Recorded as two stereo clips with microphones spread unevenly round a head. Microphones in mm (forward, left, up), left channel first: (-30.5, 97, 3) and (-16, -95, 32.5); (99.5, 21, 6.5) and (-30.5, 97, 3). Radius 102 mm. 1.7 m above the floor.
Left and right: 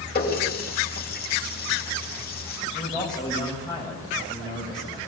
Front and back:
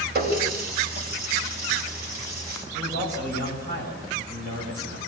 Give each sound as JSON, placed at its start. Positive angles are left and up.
{"t": 0.1, "sound": "a running tap", "azimuth_deg": 135, "distance_m": 7.0}
{"t": 2.7, "sound": "a man speaking", "azimuth_deg": 165, "distance_m": 7.5}